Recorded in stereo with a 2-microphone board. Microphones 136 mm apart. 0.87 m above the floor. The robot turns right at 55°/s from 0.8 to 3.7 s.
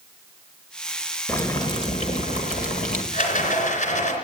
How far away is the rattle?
About 3 m.